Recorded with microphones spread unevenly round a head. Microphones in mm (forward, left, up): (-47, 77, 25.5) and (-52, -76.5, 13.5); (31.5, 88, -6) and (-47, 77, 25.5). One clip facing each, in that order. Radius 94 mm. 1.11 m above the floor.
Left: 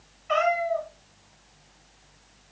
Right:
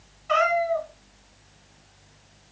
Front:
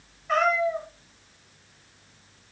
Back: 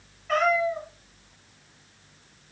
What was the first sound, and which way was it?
A cat meowing, 95° right.